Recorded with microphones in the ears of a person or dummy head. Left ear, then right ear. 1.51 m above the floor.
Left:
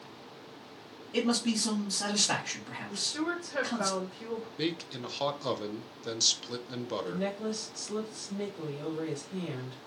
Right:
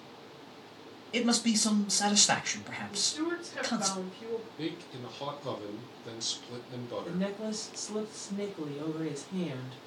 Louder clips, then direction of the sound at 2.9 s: Even; 40° left (ahead or behind).